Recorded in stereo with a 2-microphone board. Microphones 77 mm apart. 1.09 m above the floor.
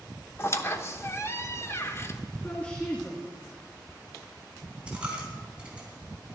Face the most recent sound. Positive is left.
turn(degrees=-15)  # may be behind; listen again after turning